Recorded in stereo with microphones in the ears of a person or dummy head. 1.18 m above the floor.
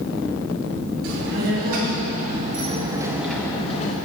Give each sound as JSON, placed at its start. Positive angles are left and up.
{"t": 1.0, "sound": "a child speaking", "side_deg": -65, "distance_m": 2.5}